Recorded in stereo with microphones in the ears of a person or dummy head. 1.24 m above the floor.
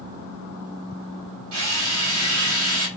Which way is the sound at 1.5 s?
80° right.